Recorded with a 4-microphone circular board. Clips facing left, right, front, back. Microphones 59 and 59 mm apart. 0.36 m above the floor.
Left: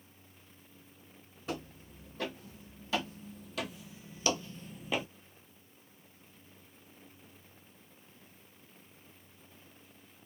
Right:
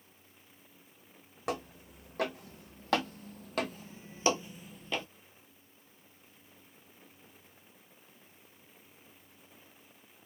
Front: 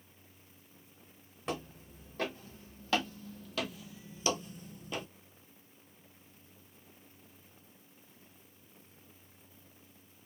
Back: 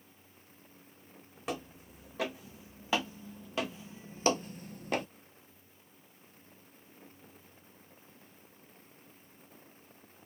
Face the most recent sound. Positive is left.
turn(degrees=160)